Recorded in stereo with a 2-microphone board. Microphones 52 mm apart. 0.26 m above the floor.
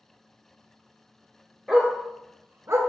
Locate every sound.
1.7 s a dog barking: centre (ahead or behind), 1.6 m; by 2.8 s 60° right (ahead or behind), 1.0 m